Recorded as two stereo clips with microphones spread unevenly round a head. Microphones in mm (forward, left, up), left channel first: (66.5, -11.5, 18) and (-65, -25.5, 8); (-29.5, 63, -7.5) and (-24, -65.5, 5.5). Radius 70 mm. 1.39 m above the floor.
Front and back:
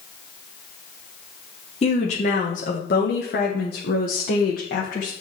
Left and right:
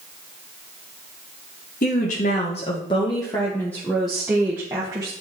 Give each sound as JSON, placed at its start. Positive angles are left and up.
{"t": 1.8, "sound": "a woman speaking", "azimuth_deg": 55, "distance_m": 1.6}